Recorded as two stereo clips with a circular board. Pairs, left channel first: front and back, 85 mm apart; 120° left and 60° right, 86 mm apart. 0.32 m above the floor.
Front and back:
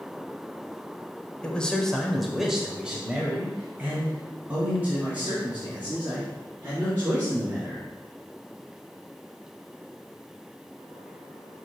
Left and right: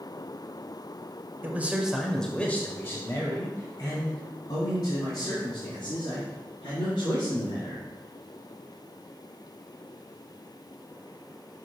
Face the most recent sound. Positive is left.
turn(degrees=115)